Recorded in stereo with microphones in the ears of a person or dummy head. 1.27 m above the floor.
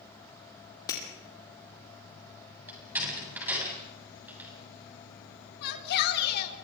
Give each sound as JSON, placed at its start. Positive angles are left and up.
{"t": 0.9, "sound": "breaking glass", "side_deg": 20, "distance_m": 4.5}
{"t": 2.7, "sound": "a door slam", "side_deg": -10, "distance_m": 8.0}
{"t": 5.6, "sound": "a shout", "side_deg": 60, "distance_m": 4.0}